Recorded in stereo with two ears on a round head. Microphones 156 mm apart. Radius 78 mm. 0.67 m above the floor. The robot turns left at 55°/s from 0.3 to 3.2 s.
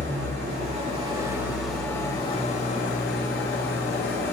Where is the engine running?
100° right, 2 m; by 4.3 s 100° left, 2 m.